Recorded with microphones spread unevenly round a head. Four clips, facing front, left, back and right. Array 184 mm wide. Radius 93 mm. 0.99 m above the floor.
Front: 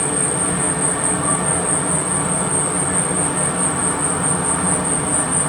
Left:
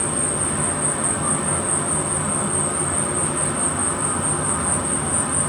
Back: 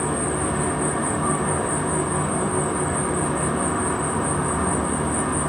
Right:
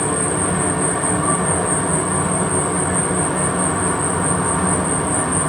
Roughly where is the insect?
Right.